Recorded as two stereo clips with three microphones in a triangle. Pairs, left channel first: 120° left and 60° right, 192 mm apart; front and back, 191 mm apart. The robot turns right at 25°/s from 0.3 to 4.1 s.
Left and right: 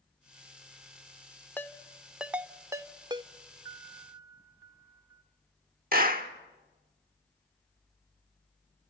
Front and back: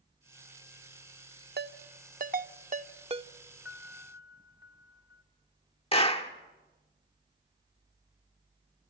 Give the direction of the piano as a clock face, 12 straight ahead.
9 o'clock.